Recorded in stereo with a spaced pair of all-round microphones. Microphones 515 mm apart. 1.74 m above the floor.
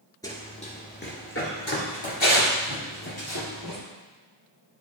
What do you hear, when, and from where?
0.2 s running footsteps: 5° left (ahead or behind), 1.7 m; by 3.8 s 50° left (ahead or behind), 2.5 m